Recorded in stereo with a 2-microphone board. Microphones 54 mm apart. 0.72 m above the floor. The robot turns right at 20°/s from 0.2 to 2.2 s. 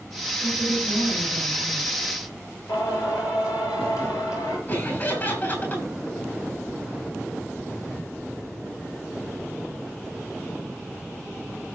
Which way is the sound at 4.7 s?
40° left (ahead or behind).